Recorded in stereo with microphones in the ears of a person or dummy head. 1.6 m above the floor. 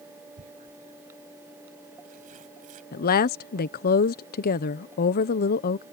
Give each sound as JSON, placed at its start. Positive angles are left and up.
{"t": 0.4, "sound": "tearing paper", "side_deg": -45}
{"t": 2.9, "sound": "a woman speaking", "side_deg": 50}